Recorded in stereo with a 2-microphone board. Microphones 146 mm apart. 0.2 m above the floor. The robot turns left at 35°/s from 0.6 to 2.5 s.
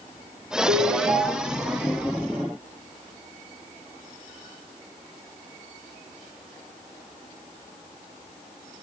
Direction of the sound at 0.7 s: 80° right.